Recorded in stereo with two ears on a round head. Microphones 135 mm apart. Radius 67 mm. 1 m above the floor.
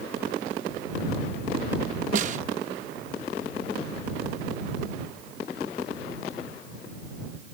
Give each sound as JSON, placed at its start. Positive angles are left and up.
{"t": 2.1, "sound": "a snare drum", "side_deg": -50}